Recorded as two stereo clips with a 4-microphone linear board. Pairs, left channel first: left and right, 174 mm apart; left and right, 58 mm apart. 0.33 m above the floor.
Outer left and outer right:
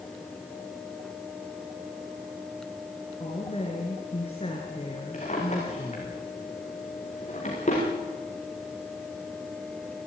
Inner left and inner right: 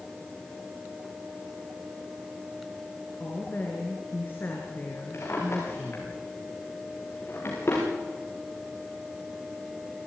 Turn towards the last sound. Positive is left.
turn(degrees=40)  # may be behind; listen again after turning